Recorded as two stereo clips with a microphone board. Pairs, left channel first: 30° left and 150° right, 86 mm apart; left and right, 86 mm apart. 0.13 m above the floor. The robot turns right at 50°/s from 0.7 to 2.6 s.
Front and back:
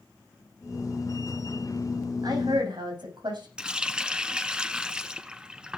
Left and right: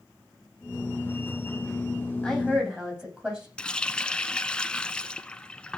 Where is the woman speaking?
175° left, 8 m; by 3.5 s 170° right, 8 m.